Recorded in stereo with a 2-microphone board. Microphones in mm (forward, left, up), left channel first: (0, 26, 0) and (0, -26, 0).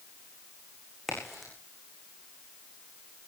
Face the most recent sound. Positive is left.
turn(degrees=-5)  # may be behind; listen again after turning